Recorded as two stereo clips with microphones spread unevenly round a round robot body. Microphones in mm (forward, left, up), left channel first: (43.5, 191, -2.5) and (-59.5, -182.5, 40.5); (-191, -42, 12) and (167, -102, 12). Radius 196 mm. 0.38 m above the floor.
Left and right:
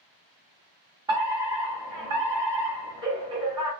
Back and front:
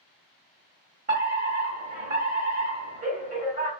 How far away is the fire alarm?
About 1.9 m.